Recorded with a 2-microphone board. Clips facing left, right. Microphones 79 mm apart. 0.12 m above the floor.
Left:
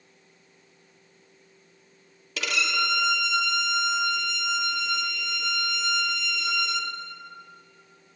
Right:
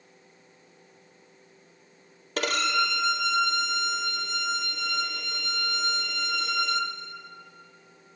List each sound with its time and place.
2.4 s a violin: 50° right (ahead or behind), 1.4 m